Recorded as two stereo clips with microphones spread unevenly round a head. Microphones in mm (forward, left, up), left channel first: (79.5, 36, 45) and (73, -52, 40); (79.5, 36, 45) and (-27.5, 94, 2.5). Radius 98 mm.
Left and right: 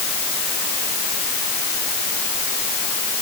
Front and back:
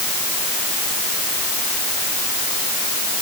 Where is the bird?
No bird in this recording.